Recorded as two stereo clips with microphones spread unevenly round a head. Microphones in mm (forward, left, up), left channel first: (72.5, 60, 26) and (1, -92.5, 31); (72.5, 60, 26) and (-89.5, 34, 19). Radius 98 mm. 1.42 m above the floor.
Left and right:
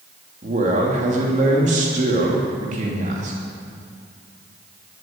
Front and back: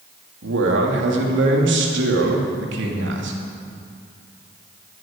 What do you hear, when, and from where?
0.4 s a man speaking: 170° right, 2.5 m